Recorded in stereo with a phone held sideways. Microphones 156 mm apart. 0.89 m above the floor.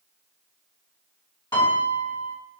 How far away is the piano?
About 1.6 m.